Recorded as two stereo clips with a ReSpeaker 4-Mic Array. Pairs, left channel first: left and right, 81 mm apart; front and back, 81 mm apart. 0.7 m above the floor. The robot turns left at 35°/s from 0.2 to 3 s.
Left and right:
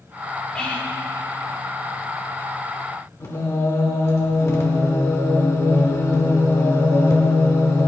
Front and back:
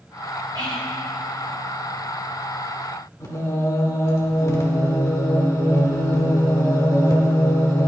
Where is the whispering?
170° left, 3.5 m; by 0.9 s 155° left, 3.5 m.